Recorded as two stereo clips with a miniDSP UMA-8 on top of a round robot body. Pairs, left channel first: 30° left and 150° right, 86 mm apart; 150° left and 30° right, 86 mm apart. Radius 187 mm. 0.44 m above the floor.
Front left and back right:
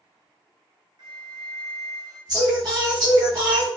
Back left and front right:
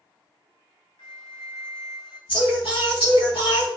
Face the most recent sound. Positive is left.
turn(degrees=165)